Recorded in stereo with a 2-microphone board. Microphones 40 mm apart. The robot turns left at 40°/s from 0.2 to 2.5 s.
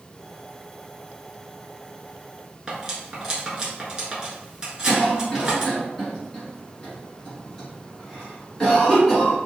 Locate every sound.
2.7 s cutlery clinking: 20° right (ahead or behind), 1.0 m
4.9 s a cough: 10° left (ahead or behind), 1.6 m